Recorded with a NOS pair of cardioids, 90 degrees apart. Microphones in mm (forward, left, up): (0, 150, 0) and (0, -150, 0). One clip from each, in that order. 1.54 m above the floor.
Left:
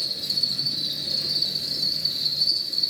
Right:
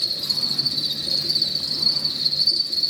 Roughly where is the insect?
Ahead right.